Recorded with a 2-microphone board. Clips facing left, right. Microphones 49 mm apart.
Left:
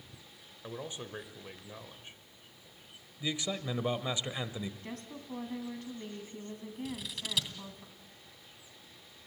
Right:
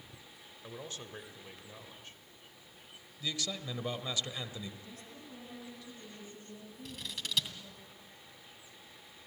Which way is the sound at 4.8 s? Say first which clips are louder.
Left 6 dB; 60° left (ahead or behind).